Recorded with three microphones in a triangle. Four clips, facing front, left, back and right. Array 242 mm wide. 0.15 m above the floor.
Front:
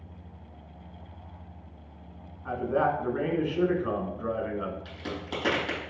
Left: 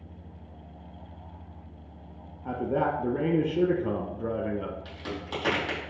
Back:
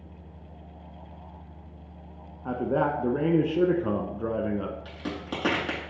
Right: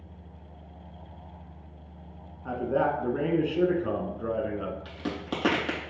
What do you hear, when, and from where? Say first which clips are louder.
2.5 s a man speaking: right 1 dB, even; 170° left, 1.3 m
4.8 s a crack: right 3 dB, back 2 dB; 115° right, 4.5 m